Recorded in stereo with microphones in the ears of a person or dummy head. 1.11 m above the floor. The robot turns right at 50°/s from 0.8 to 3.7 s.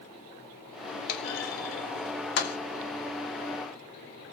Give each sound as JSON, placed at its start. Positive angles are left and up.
{"t": 1.1, "sound": "a clunk", "side_deg": 55, "distance_m": 0.8}